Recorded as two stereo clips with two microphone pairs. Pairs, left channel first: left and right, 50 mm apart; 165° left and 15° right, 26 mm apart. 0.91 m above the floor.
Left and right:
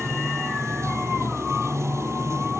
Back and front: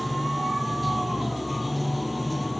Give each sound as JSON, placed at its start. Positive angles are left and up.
{"t": 0.0, "sound": "running water", "azimuth_deg": -105}